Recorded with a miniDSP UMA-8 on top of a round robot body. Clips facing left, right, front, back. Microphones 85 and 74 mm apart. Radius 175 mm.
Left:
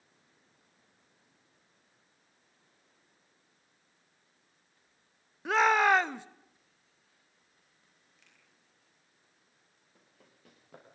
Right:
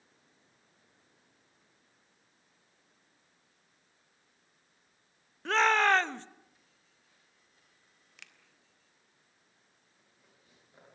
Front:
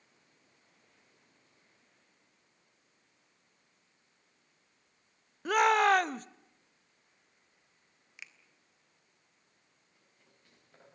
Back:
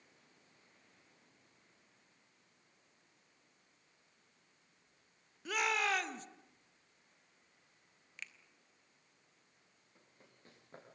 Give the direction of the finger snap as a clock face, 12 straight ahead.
3 o'clock.